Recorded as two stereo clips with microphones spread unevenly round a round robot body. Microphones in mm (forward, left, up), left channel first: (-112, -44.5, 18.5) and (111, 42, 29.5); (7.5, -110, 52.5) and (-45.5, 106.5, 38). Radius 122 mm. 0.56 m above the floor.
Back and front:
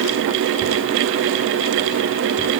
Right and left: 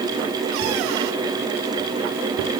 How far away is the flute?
I don't hear a flute.